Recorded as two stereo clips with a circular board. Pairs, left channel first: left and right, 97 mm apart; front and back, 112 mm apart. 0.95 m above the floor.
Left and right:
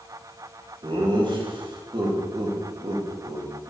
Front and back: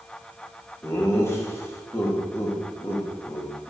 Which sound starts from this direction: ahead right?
Laughter, at 0.8 s.